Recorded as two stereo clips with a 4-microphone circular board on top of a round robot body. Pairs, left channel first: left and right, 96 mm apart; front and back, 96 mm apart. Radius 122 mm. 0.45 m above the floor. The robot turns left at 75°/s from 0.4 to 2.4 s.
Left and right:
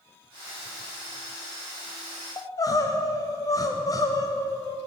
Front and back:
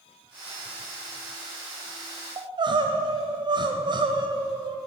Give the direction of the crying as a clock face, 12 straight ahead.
7 o'clock.